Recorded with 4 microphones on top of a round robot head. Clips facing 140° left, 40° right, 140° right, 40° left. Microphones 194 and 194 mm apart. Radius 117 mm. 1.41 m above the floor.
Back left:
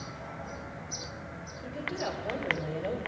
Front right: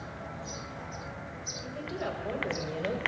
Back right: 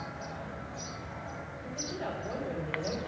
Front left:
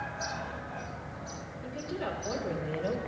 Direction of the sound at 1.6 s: 80° left.